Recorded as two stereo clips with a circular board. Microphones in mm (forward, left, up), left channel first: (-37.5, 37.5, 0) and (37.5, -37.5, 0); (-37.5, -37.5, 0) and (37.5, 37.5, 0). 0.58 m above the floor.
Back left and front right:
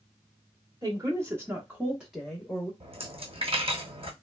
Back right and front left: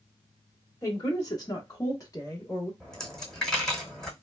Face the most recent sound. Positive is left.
turn(degrees=-50)